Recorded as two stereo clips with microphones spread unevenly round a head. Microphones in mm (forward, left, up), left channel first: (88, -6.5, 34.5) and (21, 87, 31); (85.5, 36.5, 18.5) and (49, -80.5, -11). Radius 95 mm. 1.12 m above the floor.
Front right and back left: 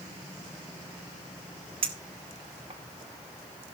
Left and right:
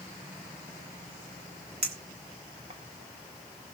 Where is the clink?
175° right, 1.1 m.